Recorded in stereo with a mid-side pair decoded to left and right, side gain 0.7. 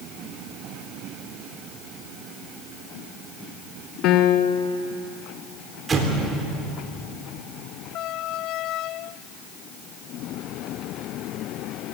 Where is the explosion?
25° right, 3 m.